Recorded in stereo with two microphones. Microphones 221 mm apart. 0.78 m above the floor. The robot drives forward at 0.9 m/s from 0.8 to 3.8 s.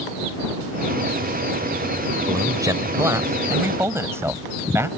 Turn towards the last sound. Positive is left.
turn(degrees=-10)  # may be behind; listen again after turning